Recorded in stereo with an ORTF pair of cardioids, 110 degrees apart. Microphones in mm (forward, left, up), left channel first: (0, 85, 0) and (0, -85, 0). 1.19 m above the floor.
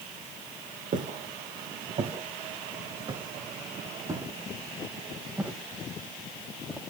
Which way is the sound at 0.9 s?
50° right.